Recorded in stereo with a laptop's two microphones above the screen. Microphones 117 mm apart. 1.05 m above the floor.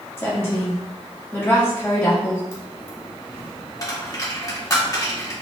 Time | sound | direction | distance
0.2 | a woman speaking | 20° left (ahead or behind) | 1.7 m
2.5 | a dropped coin | 30° left (ahead or behind) | 1.4 m